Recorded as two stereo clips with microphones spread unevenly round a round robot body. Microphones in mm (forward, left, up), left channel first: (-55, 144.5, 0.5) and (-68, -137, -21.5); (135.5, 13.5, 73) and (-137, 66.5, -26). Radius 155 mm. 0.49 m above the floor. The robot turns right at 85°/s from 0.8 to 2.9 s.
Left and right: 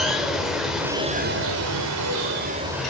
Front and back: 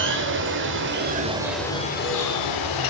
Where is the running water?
Straight behind, 1.7 m; by 2.9 s straight ahead, 1.7 m.